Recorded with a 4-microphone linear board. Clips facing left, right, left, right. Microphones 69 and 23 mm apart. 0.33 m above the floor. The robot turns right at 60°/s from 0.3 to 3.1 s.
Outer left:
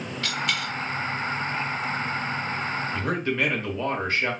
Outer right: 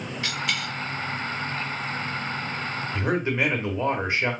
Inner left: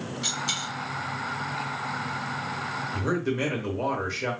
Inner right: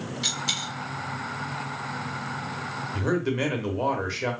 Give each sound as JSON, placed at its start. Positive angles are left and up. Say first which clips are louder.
{"t": 0.2, "sound": "a dropped coin", "louder": "outer left 1 dB, inner right 2 dB", "side_deg": -15, "distance_m": 1.4}
{"t": 2.9, "sound": "a man speaking", "louder": "outer right 3 dB, inner right 2 dB", "side_deg": -20, "distance_m": 1.0}